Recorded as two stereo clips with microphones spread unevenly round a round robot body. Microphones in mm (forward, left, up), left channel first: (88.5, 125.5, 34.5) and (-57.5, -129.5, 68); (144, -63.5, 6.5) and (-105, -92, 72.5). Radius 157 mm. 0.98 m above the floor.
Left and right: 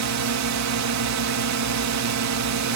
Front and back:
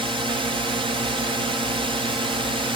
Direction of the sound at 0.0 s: 95° right.